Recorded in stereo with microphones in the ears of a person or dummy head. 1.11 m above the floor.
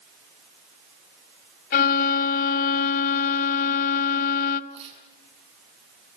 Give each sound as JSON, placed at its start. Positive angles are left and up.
{"t": 1.7, "sound": "a violin", "side_deg": 65, "distance_m": 1.2}
{"t": 4.7, "sound": "tearing paper", "side_deg": -30, "distance_m": 9.0}